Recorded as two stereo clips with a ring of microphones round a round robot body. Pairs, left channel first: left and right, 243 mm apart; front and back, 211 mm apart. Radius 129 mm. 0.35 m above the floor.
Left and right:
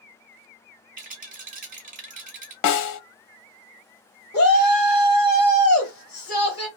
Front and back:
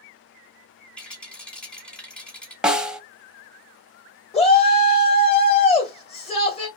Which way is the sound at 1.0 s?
80° right.